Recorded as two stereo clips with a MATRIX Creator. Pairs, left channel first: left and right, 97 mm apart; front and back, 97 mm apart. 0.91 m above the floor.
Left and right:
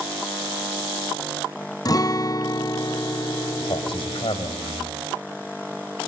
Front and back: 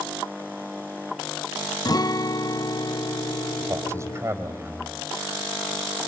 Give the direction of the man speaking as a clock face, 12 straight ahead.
8 o'clock.